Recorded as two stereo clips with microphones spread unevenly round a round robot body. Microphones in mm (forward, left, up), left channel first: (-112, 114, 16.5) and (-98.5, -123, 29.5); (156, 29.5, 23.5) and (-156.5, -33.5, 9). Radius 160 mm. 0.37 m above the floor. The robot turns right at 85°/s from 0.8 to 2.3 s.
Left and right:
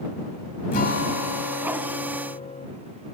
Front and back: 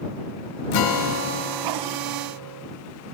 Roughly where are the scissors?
No scissors in this recording.